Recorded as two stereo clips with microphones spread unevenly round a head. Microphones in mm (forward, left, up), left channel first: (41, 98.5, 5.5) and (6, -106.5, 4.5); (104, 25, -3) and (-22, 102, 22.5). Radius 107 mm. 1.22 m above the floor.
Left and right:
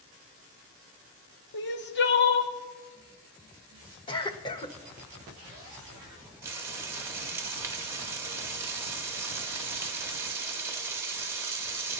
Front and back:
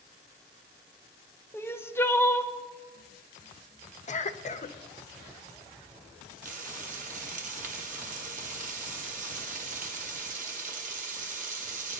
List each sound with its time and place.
1.5 s crying: 40° left, 1.0 m
4.1 s a cough: 10° left, 1.1 m
6.4 s frying: straight behind, 1.1 m